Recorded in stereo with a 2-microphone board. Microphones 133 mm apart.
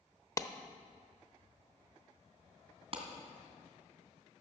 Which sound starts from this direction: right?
A clap, at 2.9 s.